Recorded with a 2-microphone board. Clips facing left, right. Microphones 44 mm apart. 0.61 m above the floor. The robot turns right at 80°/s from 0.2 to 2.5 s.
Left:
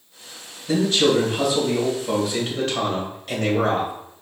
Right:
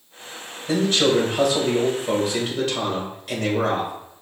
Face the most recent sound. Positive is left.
turn(degrees=-10)